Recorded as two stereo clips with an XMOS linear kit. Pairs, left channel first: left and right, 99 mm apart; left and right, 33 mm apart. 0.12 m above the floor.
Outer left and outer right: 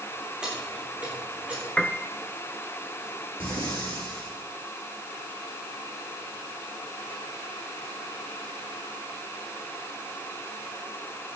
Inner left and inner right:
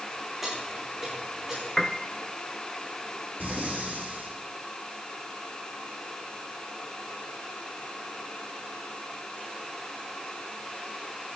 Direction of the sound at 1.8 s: 10° left (ahead or behind).